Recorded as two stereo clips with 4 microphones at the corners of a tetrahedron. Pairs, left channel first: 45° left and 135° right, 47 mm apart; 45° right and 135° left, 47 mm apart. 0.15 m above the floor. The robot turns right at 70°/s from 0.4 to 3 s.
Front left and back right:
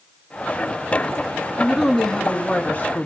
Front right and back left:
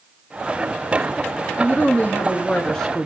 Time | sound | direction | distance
1.6 | a woman speaking | 60° right | 1.9 m